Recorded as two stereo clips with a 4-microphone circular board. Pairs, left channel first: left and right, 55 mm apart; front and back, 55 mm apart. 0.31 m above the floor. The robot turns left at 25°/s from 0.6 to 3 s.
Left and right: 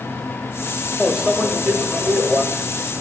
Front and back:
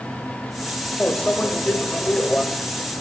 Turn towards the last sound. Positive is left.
turn(degrees=-80)